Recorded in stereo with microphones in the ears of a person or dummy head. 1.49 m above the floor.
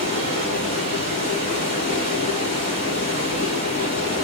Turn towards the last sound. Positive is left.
turn(degrees=30)  # may be behind; listen again after turning